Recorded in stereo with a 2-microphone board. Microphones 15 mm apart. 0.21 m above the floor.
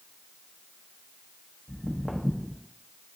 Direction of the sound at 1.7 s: 15° left (ahead or behind).